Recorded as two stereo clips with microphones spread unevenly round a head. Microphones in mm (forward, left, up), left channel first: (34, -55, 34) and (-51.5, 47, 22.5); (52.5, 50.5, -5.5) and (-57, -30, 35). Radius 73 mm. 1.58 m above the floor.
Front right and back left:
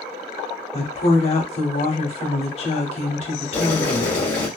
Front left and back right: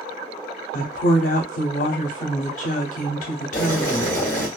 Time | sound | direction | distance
0.7 | a woman speaking | straight ahead | 0.7 m
3.5 | boiling | 50° right | 1.2 m